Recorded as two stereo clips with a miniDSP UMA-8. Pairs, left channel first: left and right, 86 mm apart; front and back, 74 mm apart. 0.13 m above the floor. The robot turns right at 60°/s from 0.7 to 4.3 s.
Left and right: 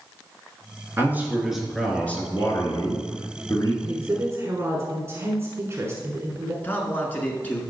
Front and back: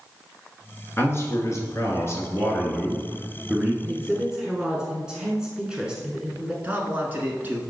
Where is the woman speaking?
140° right, 1.2 m; by 6.5 s 110° right, 1.2 m.